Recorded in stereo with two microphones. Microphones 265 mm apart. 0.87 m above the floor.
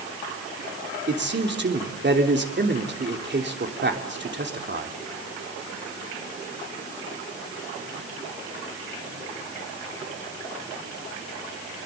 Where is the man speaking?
40° right (ahead or behind), 3 m.